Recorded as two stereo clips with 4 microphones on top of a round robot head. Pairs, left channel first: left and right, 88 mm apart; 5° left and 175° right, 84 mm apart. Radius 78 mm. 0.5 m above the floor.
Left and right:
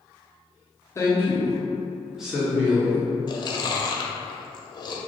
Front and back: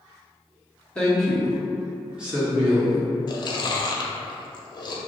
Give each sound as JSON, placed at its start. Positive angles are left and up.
{"t": 0.9, "sound": "a woman speaking", "azimuth_deg": 75, "distance_m": 1.2}
{"t": 3.3, "sound": "chewing", "azimuth_deg": 45, "distance_m": 0.6}